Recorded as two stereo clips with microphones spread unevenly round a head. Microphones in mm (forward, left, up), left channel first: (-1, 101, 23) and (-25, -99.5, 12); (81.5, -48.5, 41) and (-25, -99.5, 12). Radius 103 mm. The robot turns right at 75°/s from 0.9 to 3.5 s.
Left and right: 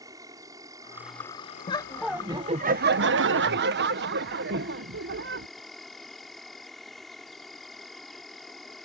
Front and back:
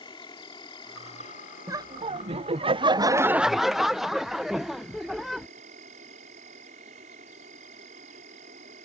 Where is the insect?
25° right; by 8.9 s 170° left.